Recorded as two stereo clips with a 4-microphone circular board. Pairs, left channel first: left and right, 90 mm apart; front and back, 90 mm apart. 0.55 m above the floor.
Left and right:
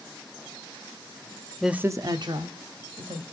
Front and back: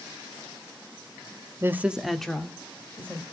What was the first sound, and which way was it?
A woman speaking, straight behind.